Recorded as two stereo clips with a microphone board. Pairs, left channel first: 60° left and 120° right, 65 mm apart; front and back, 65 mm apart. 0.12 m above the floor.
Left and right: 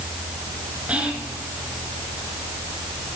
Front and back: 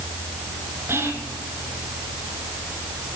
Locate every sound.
0.9 s whispering: straight behind, 1.8 m